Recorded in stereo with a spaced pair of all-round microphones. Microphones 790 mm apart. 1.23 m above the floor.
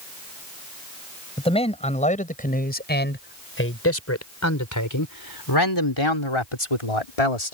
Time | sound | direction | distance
1.4 | a man speaking | 5° left (ahead or behind) | ?